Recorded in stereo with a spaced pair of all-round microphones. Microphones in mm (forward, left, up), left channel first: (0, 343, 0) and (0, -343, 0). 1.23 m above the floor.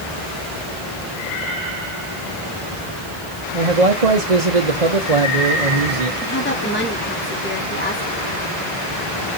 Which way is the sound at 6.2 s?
15° left (ahead or behind).